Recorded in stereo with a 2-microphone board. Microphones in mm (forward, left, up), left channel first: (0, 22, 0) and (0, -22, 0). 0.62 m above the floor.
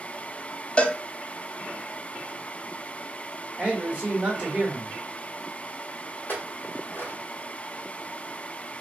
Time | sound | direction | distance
0.8 | a cowbell | 30° left (ahead or behind) | 0.6 m
3.6 | a man speaking | 20° right (ahead or behind) | 1.4 m
6.3 | a clink | 50° left (ahead or behind) | 1.3 m